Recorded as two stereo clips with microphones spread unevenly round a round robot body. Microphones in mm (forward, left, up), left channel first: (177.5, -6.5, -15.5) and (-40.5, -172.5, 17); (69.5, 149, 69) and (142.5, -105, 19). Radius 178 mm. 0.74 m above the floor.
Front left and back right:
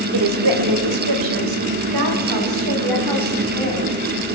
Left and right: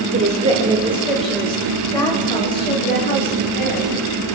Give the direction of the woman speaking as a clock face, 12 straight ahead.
5 o'clock.